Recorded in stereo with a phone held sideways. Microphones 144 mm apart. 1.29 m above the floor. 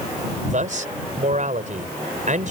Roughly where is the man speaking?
Right.